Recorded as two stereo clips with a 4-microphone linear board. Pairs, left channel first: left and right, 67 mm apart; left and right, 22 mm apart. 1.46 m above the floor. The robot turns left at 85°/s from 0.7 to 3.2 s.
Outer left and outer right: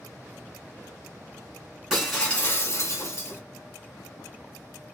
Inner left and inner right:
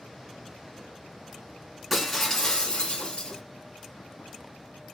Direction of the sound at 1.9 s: 170° right.